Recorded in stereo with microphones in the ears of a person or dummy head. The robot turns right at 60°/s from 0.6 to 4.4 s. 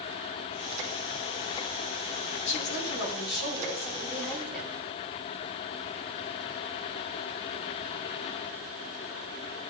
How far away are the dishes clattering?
I don't hear dishes clattering.